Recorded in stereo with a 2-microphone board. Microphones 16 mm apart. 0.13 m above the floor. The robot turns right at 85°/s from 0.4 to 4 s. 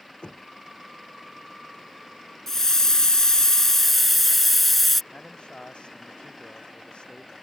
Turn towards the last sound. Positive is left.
turn(degrees=65)  # may be behind; listen again after turning